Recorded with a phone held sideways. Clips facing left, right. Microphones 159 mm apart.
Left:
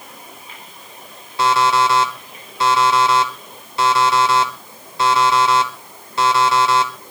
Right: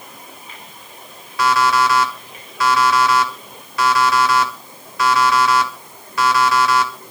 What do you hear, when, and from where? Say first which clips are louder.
1.4 s an alarm clock: even; 30° left (ahead or behind), 1.7 m